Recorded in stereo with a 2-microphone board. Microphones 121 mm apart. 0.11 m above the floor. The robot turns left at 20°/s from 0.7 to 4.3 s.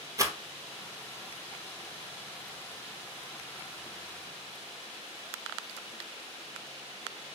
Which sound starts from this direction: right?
A rattle, at 0.2 s.